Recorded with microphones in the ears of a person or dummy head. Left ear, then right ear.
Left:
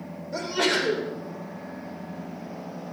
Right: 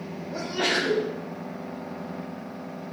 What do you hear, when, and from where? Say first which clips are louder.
0.3 s a sneeze: left 1 dB; 75° left (ahead or behind), 5 m